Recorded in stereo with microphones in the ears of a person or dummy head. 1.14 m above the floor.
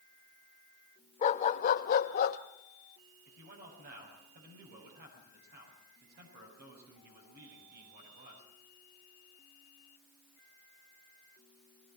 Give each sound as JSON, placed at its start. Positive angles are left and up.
{"t": 1.2, "sound": "a dog barking", "side_deg": 35, "distance_m": 1.0}
{"t": 3.3, "sound": "a man speaking", "side_deg": -60, "distance_m": 7.0}